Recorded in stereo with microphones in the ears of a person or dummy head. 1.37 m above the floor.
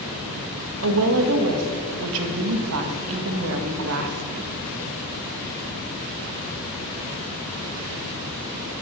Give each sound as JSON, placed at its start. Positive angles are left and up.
{"t": 0.8, "sound": "a woman speaking", "side_deg": -75, "distance_m": 1.9}